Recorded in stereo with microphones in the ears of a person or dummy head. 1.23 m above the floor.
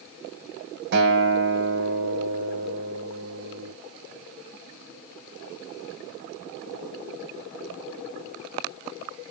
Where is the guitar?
60° right (ahead or behind), 1.1 m.